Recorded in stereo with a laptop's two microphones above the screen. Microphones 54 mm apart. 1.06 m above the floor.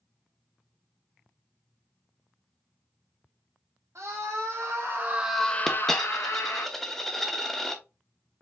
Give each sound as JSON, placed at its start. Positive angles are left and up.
{"t": 4.0, "sound": "a scream", "side_deg": -60, "distance_m": 2.0}
{"t": 5.7, "sound": "a dropped coin", "side_deg": 5, "distance_m": 0.8}